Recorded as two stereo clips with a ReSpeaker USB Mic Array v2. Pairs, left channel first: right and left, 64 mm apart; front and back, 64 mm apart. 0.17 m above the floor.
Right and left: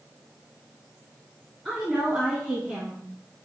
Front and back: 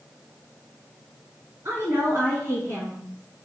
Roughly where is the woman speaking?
Behind.